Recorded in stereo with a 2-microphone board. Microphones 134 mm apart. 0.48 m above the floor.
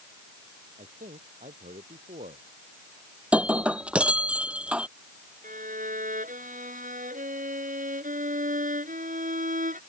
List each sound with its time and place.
0.8 s a man speaking: 70° right (ahead or behind)
3.3 s breaking glass: 10° right (ahead or behind)
5.4 s a violin: 80° right